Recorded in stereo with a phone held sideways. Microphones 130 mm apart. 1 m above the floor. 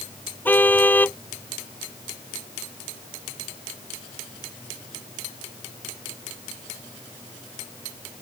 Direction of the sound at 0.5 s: 15° left (ahead or behind).